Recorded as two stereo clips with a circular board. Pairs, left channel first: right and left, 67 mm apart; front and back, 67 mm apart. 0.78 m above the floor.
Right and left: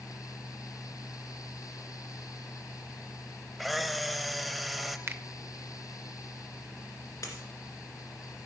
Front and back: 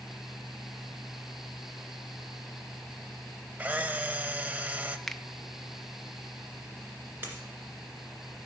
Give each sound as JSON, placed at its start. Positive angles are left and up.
{"t": 3.6, "sound": "a camera shutter", "azimuth_deg": 175, "distance_m": 0.6}
{"t": 5.1, "sound": "a finger snap", "azimuth_deg": 80, "distance_m": 0.5}
{"t": 7.2, "sound": "a dropped coin", "azimuth_deg": -120, "distance_m": 2.0}